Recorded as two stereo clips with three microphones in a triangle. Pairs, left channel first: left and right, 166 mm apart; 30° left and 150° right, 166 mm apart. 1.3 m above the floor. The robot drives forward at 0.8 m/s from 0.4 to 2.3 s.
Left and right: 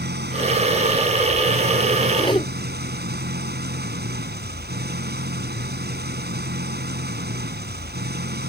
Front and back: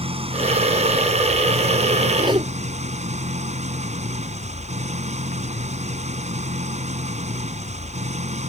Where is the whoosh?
150° left.